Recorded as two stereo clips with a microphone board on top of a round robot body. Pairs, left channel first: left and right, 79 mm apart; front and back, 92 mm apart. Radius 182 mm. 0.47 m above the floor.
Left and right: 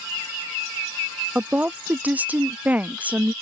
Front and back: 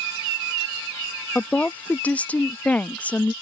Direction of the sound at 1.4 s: 50° right.